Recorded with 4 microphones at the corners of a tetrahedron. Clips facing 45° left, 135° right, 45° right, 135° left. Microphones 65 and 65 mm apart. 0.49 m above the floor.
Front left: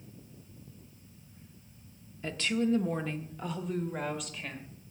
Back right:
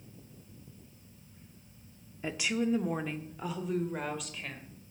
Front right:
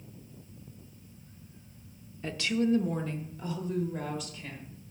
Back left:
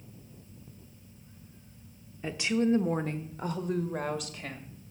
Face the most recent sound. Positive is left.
turn(degrees=135)